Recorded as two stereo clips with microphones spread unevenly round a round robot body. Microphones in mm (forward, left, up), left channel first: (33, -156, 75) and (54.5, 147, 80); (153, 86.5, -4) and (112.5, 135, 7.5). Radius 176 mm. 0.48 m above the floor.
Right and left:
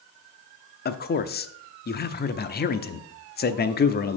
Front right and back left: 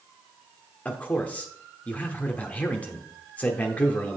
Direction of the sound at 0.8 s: 70° right.